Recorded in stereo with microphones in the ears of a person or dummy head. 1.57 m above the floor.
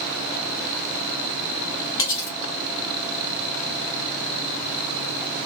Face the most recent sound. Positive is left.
turn(degrees=15)  # may be behind; listen again after turning